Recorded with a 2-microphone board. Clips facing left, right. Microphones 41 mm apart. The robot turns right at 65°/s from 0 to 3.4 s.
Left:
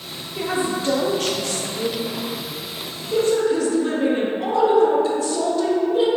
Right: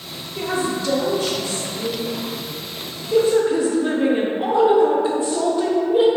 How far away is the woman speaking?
About 0.7 m.